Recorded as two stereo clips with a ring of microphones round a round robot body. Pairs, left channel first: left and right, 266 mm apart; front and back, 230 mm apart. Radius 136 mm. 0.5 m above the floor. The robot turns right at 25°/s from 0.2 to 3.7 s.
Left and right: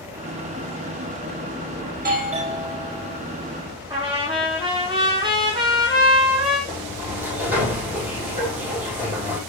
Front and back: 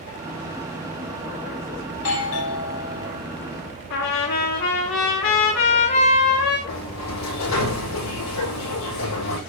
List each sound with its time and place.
1.9 s a doorbell: 35° right, 5 m; by 3.2 s 5° right, 5 m
3.9 s a trumpet: 20° right, 5.5 m
6.7 s a sliding door: 10° right, 8.5 m